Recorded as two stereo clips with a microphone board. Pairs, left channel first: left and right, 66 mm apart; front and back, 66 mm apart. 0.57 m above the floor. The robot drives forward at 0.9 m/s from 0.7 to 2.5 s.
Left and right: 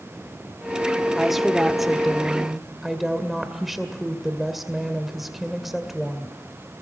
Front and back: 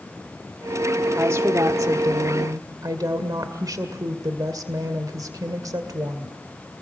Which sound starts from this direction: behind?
A woman speaking, at 1.2 s.